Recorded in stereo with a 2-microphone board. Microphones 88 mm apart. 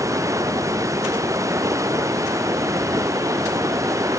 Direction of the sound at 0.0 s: 35° right (ahead or behind).